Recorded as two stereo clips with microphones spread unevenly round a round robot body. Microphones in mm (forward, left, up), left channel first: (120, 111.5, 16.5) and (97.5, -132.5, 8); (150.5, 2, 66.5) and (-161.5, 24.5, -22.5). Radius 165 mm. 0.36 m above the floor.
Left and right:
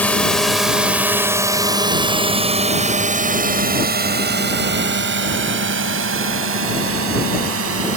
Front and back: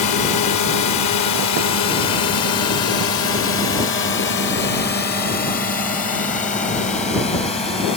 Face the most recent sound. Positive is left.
turn(degrees=-85)